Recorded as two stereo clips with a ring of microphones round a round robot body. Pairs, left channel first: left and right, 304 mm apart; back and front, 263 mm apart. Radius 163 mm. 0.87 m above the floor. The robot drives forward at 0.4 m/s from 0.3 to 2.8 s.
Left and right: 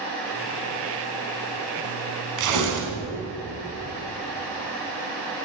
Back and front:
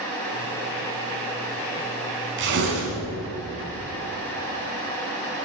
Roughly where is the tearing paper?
Ahead right.